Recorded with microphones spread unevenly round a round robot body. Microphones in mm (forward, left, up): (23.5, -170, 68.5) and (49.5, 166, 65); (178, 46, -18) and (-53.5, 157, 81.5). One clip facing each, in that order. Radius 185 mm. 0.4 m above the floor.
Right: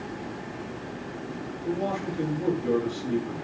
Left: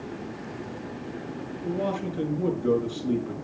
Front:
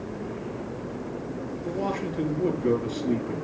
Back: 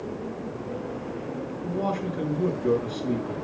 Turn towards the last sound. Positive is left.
turn(degrees=105)